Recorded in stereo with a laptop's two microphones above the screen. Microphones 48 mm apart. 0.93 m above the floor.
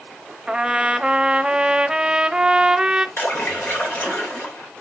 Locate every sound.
0.5 s a trumpet: 15° right (ahead or behind), 0.7 m
3.2 s a splash: 45° left (ahead or behind), 2.5 m